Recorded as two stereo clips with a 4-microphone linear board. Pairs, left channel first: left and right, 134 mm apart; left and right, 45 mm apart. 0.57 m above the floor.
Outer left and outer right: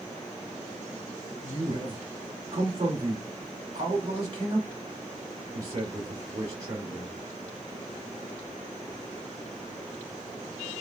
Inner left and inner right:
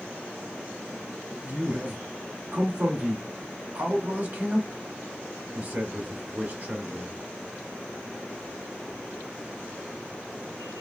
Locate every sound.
1.4 s a man speaking: 45° right (ahead or behind), 1.4 m